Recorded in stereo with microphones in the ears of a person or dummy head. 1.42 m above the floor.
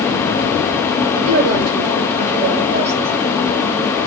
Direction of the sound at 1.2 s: 55° right (ahead or behind).